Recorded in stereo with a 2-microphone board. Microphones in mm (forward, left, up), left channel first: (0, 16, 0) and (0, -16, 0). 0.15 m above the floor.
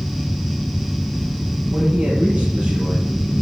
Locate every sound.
1.7 s a man speaking: 35° right (ahead or behind), 4.5 m